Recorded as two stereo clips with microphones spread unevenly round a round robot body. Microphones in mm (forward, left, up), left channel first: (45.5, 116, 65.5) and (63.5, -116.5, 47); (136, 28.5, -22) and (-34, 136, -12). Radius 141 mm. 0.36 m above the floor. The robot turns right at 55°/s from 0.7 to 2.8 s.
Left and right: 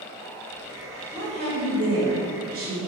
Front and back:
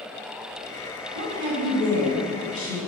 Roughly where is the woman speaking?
Behind right.